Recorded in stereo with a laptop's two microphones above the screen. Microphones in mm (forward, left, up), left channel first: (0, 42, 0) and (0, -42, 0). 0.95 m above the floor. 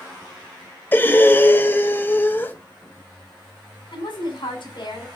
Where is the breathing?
25° left (ahead or behind), 0.5 m.